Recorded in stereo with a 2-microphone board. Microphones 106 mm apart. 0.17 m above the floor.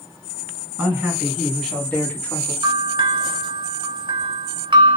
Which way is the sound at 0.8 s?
10° right (ahead or behind).